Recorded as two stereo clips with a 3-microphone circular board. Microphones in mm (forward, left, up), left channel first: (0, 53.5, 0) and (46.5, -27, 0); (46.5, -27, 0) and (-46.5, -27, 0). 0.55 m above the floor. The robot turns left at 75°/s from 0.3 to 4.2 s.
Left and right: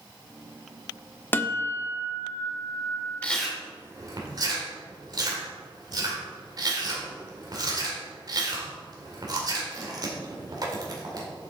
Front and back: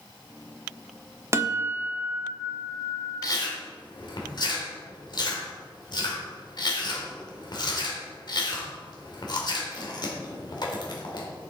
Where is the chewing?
45° left, 2.0 m; by 11.3 s 25° right, 2.0 m.